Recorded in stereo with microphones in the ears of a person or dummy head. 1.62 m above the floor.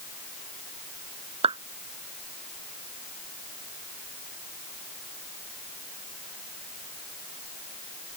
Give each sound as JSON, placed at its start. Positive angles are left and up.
{"t": 1.4, "sound": "a clap", "side_deg": -35}